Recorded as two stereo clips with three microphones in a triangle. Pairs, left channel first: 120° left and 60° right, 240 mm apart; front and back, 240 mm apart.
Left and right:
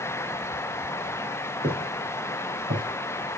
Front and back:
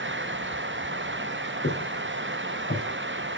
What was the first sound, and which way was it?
Footsteps, 10° right.